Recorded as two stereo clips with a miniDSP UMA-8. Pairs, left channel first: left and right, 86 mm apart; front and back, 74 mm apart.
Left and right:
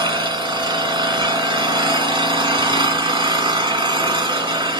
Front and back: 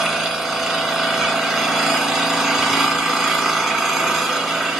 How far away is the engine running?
About 1.3 m.